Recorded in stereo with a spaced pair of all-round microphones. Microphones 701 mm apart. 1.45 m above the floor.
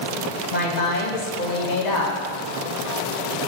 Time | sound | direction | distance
0.5 | a woman speaking | 80° left | 1.3 m